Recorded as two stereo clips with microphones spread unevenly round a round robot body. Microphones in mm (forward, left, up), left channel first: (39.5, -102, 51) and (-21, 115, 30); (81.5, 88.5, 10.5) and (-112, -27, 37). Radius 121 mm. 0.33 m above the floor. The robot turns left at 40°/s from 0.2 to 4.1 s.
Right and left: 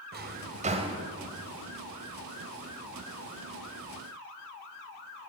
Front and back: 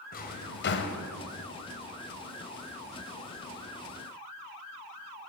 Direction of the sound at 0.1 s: 70° left.